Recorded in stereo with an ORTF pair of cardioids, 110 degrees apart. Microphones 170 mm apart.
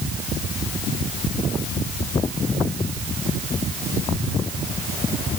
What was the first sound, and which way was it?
Only background noise.